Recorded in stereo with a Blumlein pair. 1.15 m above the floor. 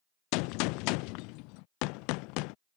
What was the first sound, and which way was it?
A gunshot, 45° left.